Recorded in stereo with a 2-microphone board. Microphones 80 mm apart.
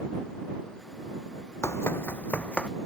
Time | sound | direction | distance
1.6 | running footsteps | 35° left (ahead or behind) | ?